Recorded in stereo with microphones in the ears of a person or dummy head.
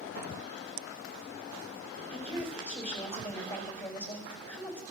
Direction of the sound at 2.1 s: 10° left (ahead or behind).